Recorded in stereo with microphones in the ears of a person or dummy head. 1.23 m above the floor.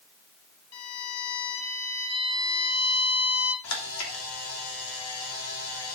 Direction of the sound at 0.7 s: 70° left (ahead or behind).